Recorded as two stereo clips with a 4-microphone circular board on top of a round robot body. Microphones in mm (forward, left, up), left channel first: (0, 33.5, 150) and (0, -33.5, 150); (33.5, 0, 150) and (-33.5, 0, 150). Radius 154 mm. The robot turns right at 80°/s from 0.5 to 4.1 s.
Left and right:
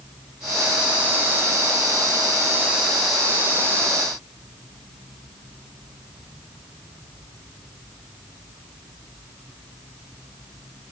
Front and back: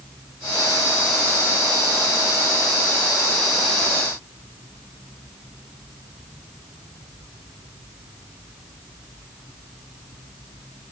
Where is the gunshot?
I don't hear a gunshot.